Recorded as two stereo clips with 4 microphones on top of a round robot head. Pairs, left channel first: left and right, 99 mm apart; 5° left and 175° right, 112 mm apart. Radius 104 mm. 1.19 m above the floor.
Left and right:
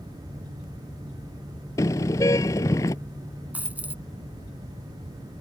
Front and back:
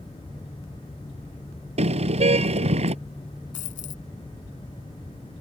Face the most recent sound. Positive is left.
turn(degrees=-15)